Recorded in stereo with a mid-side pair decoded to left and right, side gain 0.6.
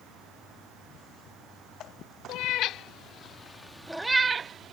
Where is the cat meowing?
70° left; by 4.7 s 45° right.